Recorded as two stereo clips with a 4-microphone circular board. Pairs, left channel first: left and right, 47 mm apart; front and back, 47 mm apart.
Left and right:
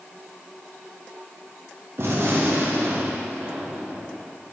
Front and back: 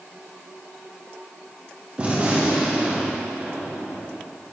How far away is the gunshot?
About 0.8 m.